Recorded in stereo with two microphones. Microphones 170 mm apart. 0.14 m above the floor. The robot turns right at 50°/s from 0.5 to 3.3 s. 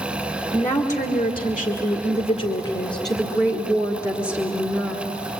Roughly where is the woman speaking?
Ahead.